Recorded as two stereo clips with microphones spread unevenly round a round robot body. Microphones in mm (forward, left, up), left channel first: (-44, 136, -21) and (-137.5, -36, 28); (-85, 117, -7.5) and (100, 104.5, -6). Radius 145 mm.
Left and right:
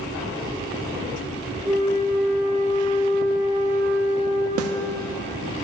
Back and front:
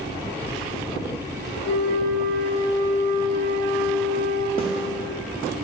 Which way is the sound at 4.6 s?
115° right.